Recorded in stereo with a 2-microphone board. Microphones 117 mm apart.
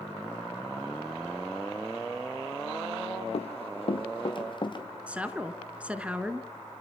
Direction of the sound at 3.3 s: 60° left (ahead or behind).